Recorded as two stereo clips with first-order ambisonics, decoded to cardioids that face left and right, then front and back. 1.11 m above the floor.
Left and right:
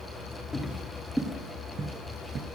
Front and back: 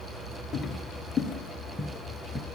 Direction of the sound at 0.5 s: 25° left.